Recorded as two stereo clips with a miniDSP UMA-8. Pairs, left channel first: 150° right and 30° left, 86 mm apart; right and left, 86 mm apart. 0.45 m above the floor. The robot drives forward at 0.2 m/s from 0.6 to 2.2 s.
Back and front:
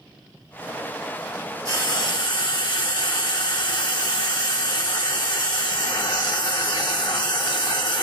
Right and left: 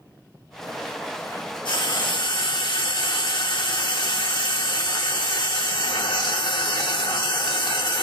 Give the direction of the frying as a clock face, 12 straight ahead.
4 o'clock.